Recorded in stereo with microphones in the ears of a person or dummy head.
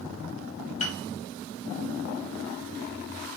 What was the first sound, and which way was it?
A piano, 40° left (ahead or behind).